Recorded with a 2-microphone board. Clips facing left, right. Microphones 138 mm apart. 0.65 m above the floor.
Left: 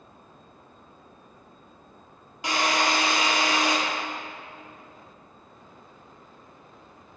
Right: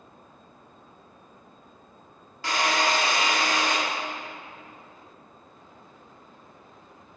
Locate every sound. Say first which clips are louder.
2.4 s a drill: even; 20° left (ahead or behind), 1.4 m